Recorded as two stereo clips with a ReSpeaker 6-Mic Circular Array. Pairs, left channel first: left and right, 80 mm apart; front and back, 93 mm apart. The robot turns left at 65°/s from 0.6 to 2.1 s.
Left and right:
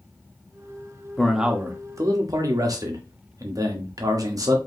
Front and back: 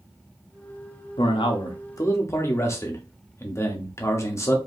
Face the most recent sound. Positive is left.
turn(degrees=-55)